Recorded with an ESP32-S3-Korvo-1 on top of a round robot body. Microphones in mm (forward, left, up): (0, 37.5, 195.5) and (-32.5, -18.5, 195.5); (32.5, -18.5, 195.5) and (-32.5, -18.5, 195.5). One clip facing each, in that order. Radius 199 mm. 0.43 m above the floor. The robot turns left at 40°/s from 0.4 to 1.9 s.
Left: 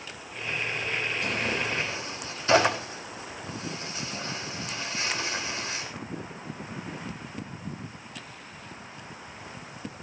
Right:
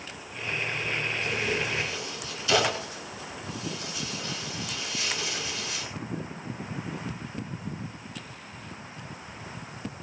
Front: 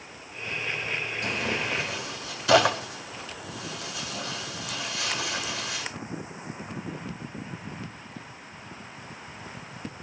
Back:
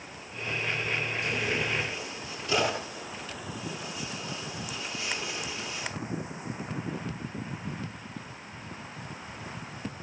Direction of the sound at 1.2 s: 30° left.